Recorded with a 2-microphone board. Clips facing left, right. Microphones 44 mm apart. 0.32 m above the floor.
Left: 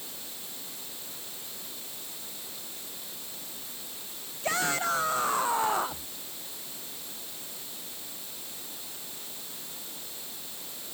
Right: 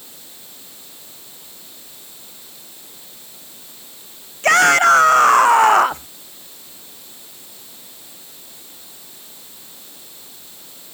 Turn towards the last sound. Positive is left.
turn(degrees=-80)